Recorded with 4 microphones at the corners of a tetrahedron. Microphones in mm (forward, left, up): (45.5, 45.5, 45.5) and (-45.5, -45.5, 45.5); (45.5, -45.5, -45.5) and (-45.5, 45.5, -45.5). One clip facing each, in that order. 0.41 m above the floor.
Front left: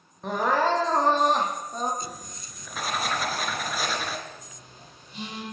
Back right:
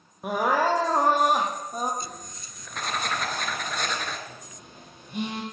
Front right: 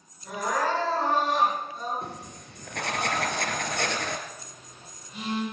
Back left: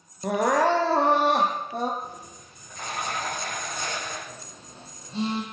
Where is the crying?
145° left, 4.5 m.